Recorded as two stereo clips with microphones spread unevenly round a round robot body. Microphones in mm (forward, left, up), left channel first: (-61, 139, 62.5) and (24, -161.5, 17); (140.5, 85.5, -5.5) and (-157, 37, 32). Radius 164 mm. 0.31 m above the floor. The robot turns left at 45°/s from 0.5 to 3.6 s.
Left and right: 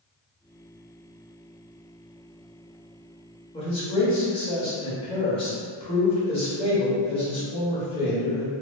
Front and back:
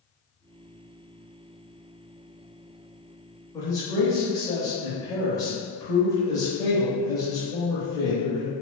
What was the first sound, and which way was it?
A man speaking, 40° left.